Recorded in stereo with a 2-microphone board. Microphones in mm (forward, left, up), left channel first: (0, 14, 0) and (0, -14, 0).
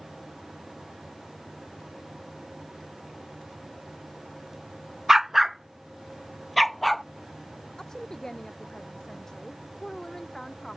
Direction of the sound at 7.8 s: 20° left (ahead or behind).